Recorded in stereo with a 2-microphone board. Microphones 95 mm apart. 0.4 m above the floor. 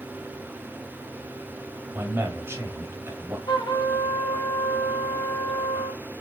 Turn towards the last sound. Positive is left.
turn(degrees=50)  # may be behind; listen again after turning